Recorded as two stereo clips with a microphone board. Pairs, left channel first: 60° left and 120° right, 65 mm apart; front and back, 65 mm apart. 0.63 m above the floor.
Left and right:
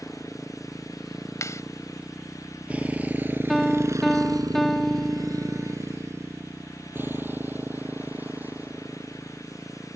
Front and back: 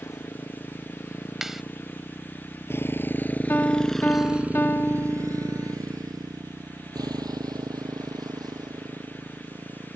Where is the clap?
95° left.